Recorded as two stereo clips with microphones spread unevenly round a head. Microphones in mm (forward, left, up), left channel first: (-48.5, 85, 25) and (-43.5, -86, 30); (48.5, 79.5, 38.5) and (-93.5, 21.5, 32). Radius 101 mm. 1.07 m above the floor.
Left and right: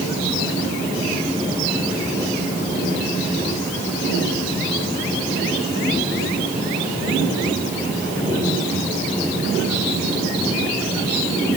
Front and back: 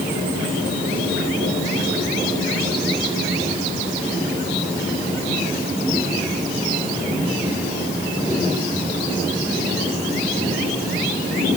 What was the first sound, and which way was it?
Only background noise.